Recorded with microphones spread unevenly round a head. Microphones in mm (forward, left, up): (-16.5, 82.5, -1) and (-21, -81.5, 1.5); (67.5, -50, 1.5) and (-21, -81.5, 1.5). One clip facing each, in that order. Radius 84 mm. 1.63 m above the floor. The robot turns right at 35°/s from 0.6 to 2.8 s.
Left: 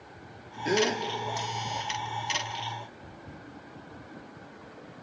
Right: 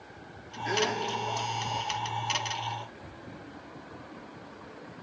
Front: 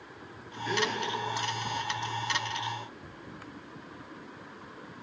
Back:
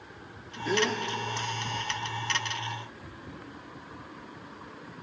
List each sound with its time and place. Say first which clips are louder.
0.7 s a gasp: left 4 dB, back 3 dB; 135° left, 1.8 m; by 1.0 s 150° left, 1.8 m